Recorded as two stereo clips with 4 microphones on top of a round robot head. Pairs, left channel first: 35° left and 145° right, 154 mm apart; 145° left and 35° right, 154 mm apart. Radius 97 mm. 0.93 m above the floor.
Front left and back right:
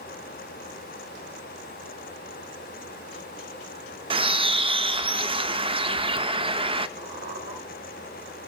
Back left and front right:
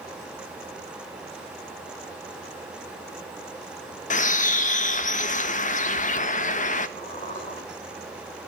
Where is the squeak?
160° right, 4.5 m.